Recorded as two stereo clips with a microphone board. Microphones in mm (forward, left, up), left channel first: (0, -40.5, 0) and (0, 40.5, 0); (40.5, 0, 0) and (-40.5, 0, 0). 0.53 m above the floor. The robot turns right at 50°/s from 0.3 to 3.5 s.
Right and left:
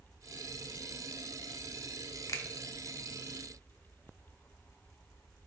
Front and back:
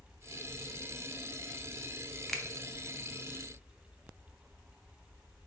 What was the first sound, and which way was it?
A finger snap, 90° right.